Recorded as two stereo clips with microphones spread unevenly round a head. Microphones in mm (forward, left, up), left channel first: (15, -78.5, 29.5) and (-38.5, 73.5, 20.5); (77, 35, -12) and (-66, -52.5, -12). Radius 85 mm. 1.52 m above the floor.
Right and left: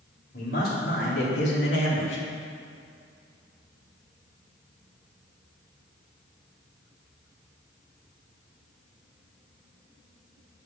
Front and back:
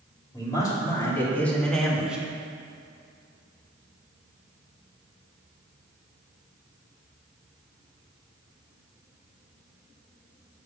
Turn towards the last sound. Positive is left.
turn(degrees=-65)